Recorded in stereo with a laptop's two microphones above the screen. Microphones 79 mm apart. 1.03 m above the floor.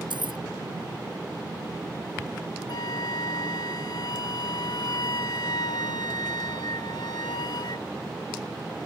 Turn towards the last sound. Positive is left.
turn(degrees=70)  # may be behind; listen again after turning